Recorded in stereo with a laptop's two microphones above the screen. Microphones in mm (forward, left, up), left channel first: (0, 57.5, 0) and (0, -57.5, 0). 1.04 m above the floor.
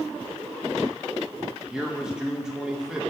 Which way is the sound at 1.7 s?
5° right (ahead or behind).